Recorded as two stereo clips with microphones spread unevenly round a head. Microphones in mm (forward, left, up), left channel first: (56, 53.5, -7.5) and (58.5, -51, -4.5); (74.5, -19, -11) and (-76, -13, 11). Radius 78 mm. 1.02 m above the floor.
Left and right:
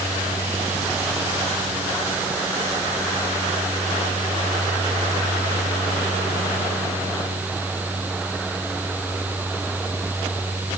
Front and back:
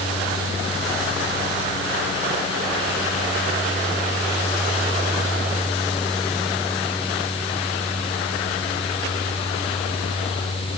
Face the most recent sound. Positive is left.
No sound to turn to.